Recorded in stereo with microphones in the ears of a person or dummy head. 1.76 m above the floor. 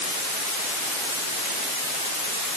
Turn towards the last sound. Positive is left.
No sound to turn to.